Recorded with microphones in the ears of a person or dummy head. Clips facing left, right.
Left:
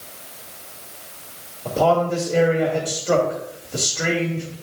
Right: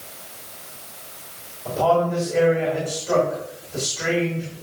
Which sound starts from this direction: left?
A man speaking, at 1.6 s.